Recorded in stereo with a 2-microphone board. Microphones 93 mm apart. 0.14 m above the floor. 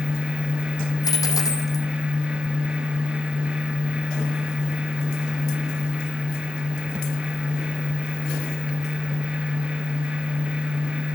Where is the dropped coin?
40° left (ahead or behind), 3 m.